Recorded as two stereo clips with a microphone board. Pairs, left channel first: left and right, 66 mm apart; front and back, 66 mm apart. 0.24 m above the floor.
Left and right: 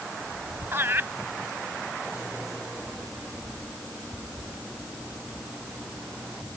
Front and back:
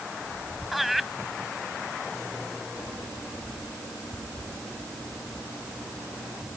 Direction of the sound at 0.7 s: 95° right.